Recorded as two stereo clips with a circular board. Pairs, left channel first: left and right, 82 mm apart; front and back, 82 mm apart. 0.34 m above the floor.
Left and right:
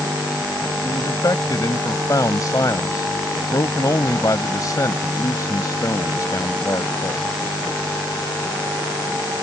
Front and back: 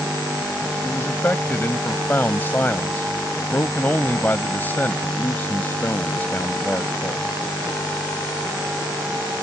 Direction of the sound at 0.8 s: 60° left.